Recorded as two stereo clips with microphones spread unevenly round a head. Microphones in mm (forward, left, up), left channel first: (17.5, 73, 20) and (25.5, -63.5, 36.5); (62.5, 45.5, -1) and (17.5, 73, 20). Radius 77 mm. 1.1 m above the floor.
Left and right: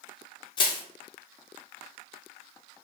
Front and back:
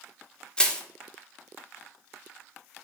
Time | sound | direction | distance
0.6 | crushing | 60° left | 0.7 m